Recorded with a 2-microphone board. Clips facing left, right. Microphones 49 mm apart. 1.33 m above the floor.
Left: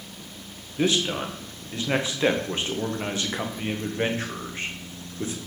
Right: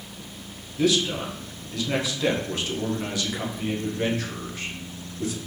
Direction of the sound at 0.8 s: 30° left (ahead or behind).